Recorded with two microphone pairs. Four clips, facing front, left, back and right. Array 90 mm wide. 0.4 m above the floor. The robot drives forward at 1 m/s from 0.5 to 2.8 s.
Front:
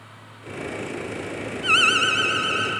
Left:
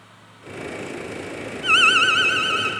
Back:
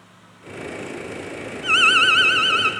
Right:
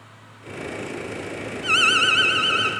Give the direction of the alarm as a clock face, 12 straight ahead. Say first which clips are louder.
Left 3 dB, back 3 dB; 10 o'clock.